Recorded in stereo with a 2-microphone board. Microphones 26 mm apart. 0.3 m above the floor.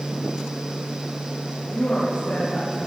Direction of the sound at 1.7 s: 80° left.